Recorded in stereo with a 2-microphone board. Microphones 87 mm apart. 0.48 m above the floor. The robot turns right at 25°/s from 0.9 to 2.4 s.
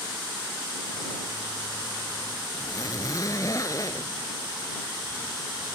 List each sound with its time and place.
2.5 s a zipper: 40° left (ahead or behind)